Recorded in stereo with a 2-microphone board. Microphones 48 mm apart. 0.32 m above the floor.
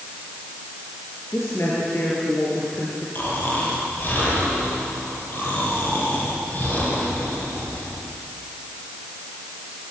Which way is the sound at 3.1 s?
45° left (ahead or behind).